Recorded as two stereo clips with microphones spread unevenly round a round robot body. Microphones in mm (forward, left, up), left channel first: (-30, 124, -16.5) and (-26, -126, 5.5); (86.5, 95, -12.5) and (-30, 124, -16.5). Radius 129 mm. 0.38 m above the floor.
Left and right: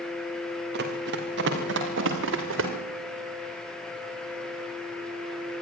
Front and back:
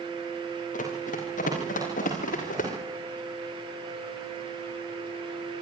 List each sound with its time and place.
0.7 s running footsteps: 35° right, 5.5 m; by 2.7 s 45° right, 6.5 m